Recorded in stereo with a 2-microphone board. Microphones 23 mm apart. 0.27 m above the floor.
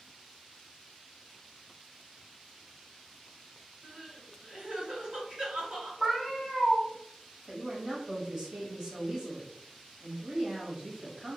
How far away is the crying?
About 1.4 m.